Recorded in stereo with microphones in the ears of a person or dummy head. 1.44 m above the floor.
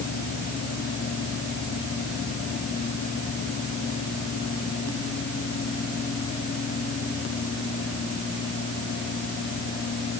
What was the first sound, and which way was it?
Only background noise.